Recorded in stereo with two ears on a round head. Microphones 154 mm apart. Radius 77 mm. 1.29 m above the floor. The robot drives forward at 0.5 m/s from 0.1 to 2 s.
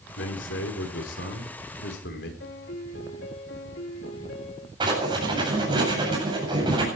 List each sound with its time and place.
0.2 s a man speaking: 85° left, 4.5 m; by 2.3 s 75° left (ahead or behind), 4.5 m
2.4 s a piano: 70° left (ahead or behind), 3 m
4.8 s writing: 25° right (ahead or behind), 8 m